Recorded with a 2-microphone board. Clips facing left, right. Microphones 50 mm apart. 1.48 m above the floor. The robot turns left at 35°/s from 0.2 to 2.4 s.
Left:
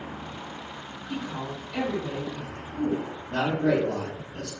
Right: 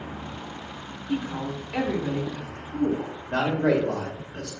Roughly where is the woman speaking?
Ahead right.